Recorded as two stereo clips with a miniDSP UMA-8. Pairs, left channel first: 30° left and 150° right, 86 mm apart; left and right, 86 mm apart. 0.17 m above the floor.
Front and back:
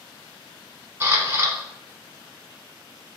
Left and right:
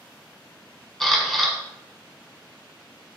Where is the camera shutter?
175° left, 1.0 m.